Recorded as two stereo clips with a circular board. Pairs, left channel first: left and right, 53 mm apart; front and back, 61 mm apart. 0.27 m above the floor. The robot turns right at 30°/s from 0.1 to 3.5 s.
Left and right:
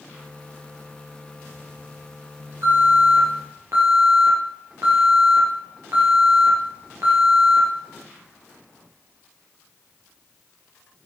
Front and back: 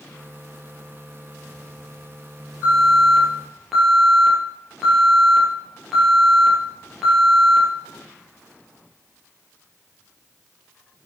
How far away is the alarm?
About 5 m.